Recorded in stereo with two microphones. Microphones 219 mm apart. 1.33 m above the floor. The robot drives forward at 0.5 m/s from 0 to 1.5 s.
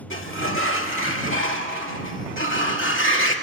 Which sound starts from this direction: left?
A sliding door, at 0.1 s.